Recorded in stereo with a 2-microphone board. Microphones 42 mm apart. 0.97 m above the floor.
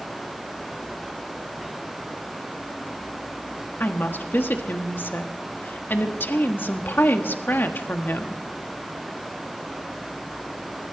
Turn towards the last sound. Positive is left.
turn(degrees=55)  # may be behind; listen again after turning